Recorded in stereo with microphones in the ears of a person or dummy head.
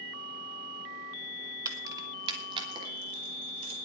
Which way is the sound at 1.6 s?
20° right (ahead or behind).